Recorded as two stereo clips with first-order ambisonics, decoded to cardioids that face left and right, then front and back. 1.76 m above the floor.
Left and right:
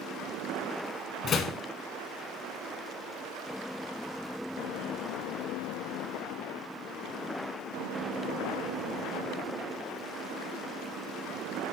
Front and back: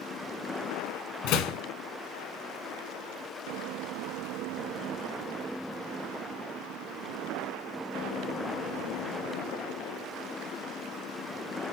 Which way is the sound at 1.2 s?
35° left.